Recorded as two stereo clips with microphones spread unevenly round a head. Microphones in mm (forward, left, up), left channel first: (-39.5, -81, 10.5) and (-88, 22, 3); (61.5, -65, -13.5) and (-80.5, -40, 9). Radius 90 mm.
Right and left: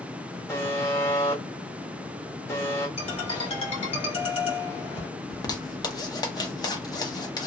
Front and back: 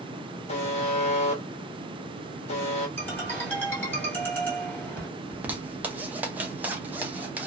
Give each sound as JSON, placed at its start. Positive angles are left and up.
{"t": 0.5, "sound": "a buzzer", "azimuth_deg": 5, "distance_m": 0.6}
{"t": 3.0, "sound": "a ringtone", "azimuth_deg": -85, "distance_m": 1.5}
{"t": 5.3, "sound": "a zipper", "azimuth_deg": -105, "distance_m": 0.7}